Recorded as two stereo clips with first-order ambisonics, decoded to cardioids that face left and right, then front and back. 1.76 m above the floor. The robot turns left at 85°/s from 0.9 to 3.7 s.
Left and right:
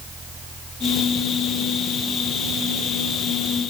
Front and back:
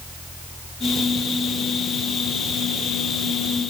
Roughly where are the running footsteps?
No running footsteps in this recording.